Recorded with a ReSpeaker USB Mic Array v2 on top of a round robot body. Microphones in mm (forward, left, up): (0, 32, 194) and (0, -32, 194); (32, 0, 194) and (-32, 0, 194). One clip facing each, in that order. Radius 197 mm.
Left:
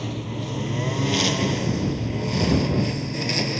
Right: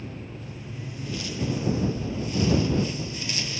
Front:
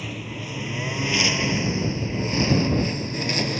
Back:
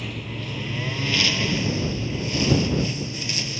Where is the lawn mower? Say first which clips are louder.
Left 8 dB, even; 85° left; by 3.6 s 40° left.